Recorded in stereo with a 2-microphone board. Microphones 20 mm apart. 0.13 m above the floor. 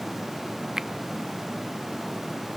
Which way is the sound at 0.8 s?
25° right (ahead or behind).